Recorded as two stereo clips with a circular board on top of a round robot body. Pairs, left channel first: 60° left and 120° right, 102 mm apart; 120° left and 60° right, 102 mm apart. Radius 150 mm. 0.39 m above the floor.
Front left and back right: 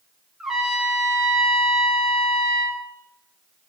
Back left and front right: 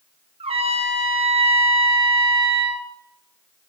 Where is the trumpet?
35° right, 1.5 m.